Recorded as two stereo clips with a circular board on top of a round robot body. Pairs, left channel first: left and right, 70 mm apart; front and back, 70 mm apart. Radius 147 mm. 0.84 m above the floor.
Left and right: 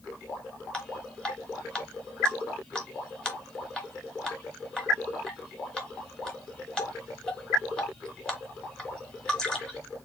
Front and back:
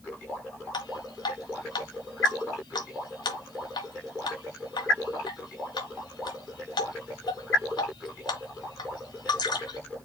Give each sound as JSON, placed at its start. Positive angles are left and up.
{"t": 0.7, "sound": "dripping", "azimuth_deg": 10, "distance_m": 1.0}